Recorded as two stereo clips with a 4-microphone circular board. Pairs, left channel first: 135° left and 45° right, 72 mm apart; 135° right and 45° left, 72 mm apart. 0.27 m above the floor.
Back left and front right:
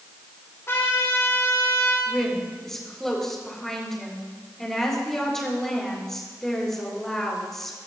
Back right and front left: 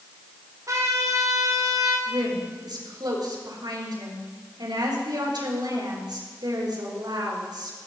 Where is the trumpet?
80° left, 8.5 m.